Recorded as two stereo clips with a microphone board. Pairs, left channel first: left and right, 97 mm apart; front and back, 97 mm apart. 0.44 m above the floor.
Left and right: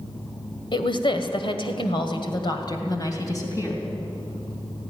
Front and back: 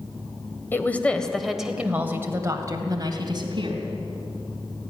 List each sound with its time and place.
0.7 s a woman speaking: 65° left, 2 m; by 3.8 s 145° left, 3 m